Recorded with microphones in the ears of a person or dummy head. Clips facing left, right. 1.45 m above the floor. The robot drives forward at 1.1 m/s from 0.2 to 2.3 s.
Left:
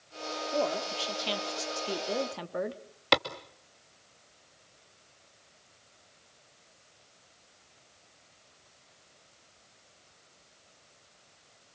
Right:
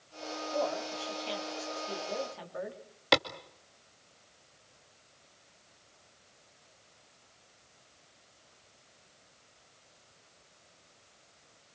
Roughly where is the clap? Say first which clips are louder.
Even; centre.